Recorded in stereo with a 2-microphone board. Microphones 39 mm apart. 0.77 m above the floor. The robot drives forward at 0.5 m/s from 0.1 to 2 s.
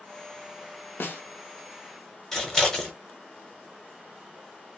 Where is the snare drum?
70° left (ahead or behind), 0.6 m; by 1.2 s 60° left (ahead or behind), 0.6 m.